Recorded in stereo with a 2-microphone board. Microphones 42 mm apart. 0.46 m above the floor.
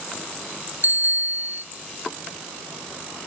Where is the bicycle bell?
50° right (ahead or behind), 2.5 m.